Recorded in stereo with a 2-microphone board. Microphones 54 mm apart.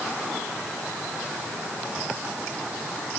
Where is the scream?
No scream in this recording.